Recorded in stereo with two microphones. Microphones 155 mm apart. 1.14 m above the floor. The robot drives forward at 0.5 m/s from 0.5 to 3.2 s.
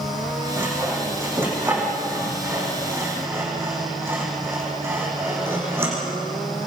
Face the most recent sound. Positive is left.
turn(degrees=-15)  # may be behind; listen again after turning